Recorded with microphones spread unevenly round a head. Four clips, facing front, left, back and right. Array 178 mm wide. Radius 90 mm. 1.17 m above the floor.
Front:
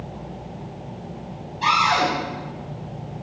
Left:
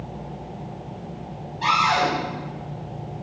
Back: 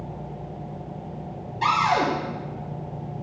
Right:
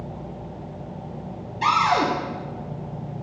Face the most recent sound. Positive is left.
turn(degrees=-130)